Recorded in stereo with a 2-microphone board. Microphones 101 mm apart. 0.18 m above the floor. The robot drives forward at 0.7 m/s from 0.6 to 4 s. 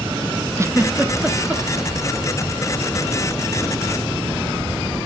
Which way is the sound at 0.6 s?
30° right (ahead or behind).